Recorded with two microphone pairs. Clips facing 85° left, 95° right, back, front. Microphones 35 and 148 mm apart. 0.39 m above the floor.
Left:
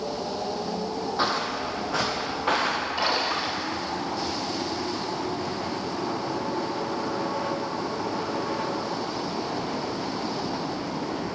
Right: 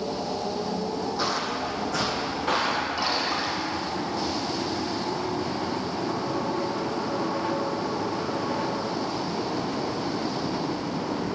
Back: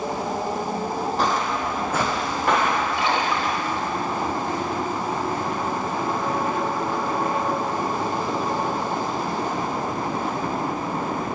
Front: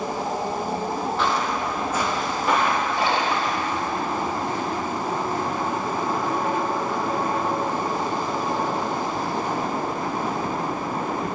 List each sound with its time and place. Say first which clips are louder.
1.2 s footsteps: left 3 dB, back 1 dB; 135° left, 0.7 m; by 2.8 s 155° left, 1.9 m
3.0 s a splash: left 1 dB, even; 40° left, 1.0 m